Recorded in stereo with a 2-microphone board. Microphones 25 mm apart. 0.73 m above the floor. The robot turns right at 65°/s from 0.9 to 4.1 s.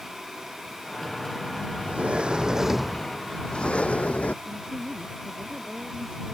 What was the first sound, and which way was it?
A sliding door, 70° right.